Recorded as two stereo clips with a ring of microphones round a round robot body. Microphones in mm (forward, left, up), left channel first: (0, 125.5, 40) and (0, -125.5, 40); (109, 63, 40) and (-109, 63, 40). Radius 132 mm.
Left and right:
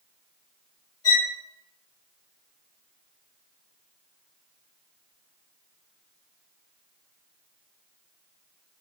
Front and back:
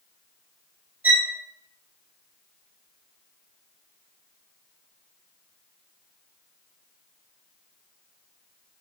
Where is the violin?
100° left, 2.5 m.